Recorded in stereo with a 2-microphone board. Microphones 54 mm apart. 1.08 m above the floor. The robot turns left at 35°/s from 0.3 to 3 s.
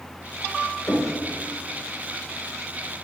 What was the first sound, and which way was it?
Knocking, 45° left (ahead or behind).